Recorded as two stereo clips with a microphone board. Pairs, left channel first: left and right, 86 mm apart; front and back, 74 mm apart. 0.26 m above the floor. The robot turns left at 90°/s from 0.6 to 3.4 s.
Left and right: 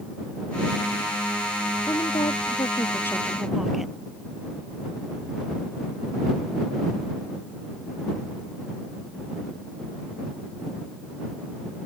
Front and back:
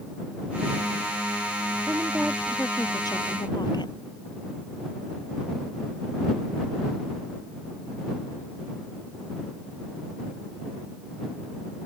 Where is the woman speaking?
135° left; by 3.9 s straight ahead.